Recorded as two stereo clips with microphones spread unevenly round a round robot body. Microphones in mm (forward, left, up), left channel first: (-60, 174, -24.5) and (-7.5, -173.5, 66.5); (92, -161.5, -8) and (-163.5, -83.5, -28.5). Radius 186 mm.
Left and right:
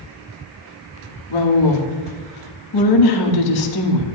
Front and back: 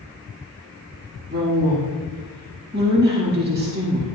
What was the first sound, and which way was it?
A woman speaking, 100° left.